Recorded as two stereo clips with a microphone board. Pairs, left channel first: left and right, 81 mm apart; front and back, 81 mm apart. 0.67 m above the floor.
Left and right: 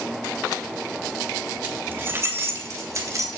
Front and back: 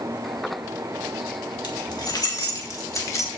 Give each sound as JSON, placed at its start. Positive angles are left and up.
{"t": 1.6, "sound": "keys jangling", "azimuth_deg": -25, "distance_m": 2.5}